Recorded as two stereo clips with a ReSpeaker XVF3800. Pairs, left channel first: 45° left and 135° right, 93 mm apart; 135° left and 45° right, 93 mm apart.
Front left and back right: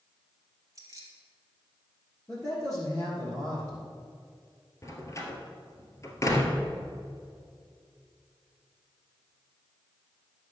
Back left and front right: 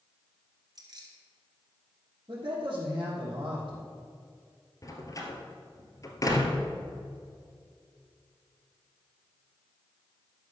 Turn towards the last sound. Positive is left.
turn(degrees=95)